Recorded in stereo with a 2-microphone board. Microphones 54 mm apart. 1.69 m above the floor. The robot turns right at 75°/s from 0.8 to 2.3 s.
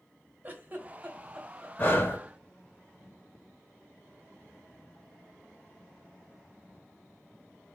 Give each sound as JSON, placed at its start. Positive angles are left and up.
{"t": 0.4, "sound": "a giggle", "side_deg": -30, "distance_m": 1.6}
{"t": 1.8, "sound": "breathing", "side_deg": 40, "distance_m": 1.4}